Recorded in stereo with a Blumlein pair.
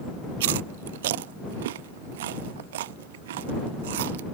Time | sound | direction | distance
0.4 | chewing | 55° right | ?